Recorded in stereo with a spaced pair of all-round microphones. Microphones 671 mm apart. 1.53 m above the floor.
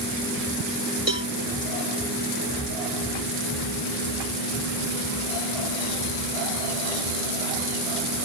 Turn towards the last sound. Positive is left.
turn(degrees=-50)  # may be behind; listen again after turning